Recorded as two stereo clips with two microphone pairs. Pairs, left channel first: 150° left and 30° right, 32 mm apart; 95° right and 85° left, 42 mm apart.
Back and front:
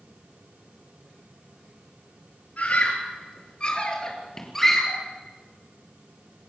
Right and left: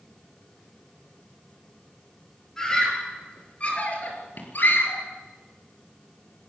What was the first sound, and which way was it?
A scream, 170° right.